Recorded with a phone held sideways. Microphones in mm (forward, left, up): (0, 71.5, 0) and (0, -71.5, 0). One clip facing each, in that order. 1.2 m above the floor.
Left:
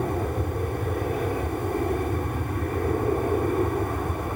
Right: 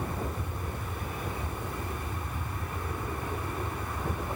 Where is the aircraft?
55° left (ahead or behind); by 4.4 s 50° left (ahead or behind).